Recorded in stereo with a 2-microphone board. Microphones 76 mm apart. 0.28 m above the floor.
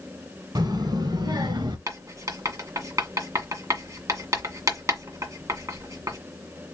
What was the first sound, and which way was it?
A child speaking, 60° right (ahead or behind).